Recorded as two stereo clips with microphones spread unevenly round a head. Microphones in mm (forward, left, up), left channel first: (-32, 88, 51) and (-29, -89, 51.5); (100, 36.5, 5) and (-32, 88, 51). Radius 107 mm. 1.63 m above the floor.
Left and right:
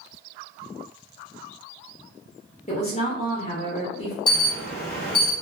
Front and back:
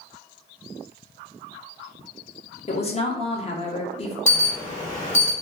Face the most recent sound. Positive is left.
turn(degrees=25)